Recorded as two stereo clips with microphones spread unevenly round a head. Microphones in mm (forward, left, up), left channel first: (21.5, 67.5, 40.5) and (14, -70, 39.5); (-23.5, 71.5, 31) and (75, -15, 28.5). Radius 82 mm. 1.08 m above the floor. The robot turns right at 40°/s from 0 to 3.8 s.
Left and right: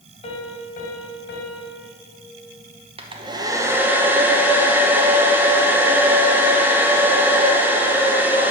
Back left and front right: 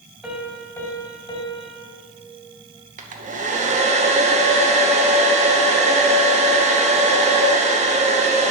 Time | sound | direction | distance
0.2 | a piano | 50° left | 1.5 m
3.0 | a hair dryer | 50° right | 0.9 m